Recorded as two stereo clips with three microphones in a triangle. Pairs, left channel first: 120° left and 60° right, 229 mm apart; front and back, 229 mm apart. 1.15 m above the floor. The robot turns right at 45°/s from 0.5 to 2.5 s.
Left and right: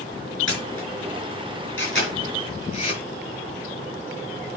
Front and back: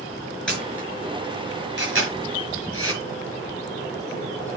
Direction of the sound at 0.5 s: 85° left.